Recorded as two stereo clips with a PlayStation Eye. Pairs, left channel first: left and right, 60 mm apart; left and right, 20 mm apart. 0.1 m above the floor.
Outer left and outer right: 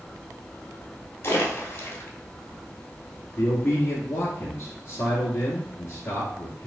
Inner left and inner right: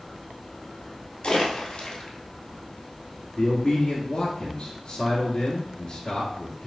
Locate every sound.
1.2 s a splash: 45° left (ahead or behind), 1.4 m
3.4 s a man speaking: 35° left (ahead or behind), 1.2 m